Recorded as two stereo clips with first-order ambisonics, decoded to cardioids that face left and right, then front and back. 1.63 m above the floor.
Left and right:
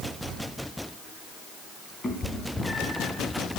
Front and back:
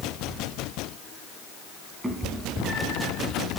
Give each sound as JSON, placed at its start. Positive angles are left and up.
{"t": 0.2, "sound": "keys jangling", "azimuth_deg": 165, "distance_m": 4.5}
{"t": 2.0, "sound": "a cat meowing", "azimuth_deg": 115, "distance_m": 1.6}